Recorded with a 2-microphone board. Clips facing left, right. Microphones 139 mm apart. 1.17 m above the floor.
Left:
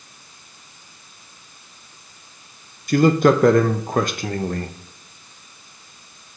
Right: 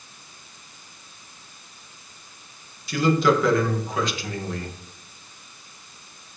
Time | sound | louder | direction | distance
2.9 | a man speaking | left 5 dB | 50° left (ahead or behind) | 0.5 m